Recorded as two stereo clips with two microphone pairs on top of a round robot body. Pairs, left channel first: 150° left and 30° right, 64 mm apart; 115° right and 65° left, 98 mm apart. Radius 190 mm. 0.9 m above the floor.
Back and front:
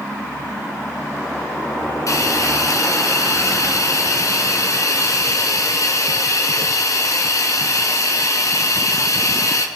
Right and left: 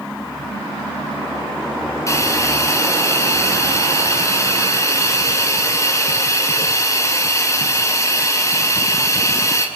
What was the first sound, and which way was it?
A hiss, 170° right.